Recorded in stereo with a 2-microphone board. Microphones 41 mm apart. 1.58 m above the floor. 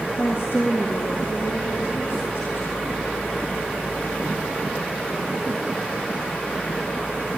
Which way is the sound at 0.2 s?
75° left (ahead or behind).